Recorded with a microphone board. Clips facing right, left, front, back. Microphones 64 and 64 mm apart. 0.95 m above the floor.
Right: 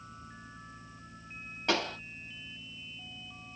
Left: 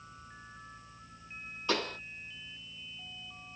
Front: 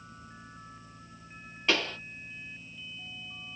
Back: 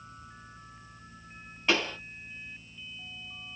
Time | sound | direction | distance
1.7 | a pop | 90° right | 3.5 m